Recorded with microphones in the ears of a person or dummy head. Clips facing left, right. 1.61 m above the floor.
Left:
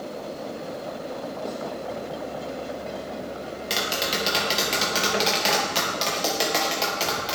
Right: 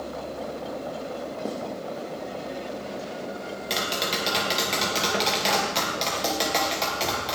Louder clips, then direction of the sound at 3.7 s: Left 1 dB; 5° left (ahead or behind).